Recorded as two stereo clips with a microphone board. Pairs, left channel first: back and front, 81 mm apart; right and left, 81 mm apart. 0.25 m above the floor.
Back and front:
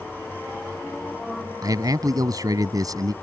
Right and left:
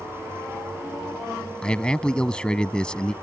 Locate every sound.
1.6 s a man speaking: 15° right